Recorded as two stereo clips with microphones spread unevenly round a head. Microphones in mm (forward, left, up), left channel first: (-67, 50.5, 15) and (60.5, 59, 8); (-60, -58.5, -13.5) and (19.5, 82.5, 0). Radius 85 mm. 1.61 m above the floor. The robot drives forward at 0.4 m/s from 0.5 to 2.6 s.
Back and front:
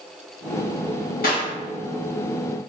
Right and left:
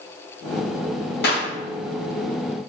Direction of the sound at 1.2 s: 140° right.